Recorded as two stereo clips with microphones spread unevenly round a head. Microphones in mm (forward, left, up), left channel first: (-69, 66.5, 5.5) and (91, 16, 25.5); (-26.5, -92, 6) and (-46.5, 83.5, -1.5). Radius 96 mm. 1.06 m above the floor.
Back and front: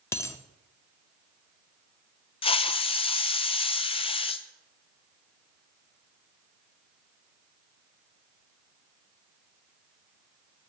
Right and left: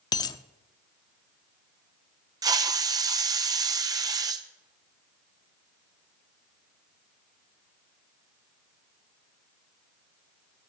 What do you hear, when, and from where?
0.1 s a dropped coin: 125° right, 0.6 m
2.4 s a hiss: 150° left, 0.8 m